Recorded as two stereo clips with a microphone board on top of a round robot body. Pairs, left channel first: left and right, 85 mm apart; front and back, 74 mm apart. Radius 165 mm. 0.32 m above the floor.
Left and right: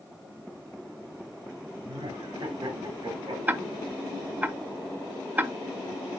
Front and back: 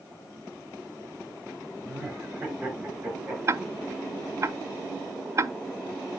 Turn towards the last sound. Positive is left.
turn(degrees=-145)